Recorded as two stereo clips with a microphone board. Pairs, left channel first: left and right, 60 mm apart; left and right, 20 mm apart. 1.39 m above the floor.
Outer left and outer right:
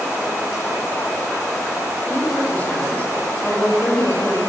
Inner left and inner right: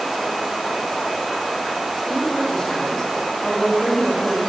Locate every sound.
2.1 s a woman speaking: 25° left (ahead or behind), 6 m